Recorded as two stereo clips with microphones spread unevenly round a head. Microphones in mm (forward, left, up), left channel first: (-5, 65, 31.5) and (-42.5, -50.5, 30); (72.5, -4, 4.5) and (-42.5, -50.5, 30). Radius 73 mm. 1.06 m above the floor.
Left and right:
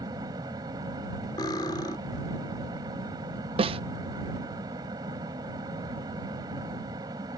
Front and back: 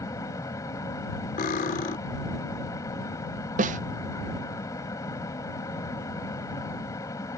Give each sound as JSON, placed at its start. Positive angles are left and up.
{"t": 0.0, "sound": "a fan", "azimuth_deg": -45}
{"t": 1.4, "sound": "cutlery clinking", "azimuth_deg": 10}
{"t": 3.6, "sound": "a snare drum", "azimuth_deg": -140}